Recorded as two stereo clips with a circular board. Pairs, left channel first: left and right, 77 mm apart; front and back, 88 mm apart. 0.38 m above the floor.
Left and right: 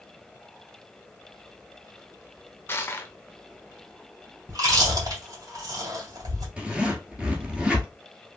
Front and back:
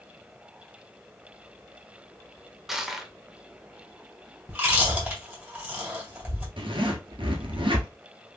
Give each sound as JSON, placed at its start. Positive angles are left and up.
{"t": 2.7, "sound": "crushing", "azimuth_deg": 95, "distance_m": 0.6}
{"t": 4.5, "sound": "chewing", "azimuth_deg": -110, "distance_m": 2.0}
{"t": 6.6, "sound": "a zipper", "azimuth_deg": -170, "distance_m": 1.1}